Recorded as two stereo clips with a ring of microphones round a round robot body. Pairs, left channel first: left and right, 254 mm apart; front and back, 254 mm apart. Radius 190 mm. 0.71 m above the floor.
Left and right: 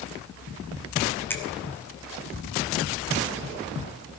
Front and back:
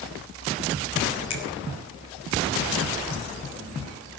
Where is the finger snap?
10° left, 3 m.